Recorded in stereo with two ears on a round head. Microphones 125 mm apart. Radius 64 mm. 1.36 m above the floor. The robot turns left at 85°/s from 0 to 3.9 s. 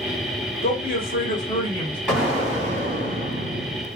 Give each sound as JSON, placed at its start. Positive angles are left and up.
{"t": 0.6, "sound": "a man speaking", "azimuth_deg": 125, "distance_m": 1.3}
{"t": 2.1, "sound": "an explosion", "azimuth_deg": 5, "distance_m": 1.7}